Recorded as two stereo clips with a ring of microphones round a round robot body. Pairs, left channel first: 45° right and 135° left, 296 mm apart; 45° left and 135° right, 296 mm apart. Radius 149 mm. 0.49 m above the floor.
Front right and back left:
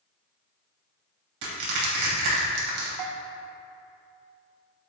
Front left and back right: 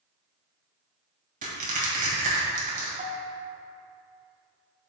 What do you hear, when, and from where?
1.4 s crushing: 160° left, 2.5 m
3.0 s a bell: 160° left, 0.8 m